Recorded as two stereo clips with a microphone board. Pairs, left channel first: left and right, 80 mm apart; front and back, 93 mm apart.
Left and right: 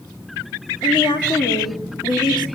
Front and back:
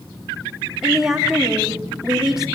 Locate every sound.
0.8 s a woman speaking: 95° left, 3 m